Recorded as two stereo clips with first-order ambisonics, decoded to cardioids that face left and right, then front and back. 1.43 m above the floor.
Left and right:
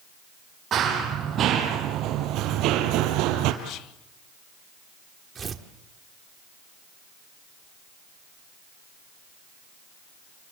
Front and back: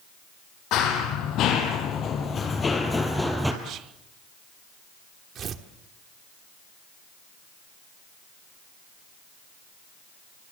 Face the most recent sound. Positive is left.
turn(degrees=-145)